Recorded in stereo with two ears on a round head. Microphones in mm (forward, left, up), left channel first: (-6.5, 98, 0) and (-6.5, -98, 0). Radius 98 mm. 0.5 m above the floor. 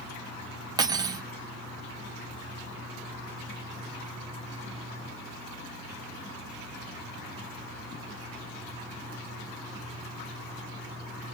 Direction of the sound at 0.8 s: 20° right (ahead or behind).